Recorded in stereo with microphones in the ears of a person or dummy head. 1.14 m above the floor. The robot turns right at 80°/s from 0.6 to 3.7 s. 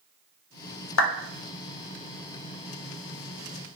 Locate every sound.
1.0 s a clap: 75° left (ahead or behind), 0.7 m; by 1.1 s 85° left, 0.7 m